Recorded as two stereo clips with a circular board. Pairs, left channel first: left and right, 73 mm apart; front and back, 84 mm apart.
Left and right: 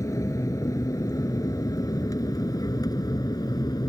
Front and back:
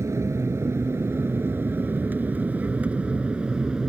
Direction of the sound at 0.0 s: 130° left.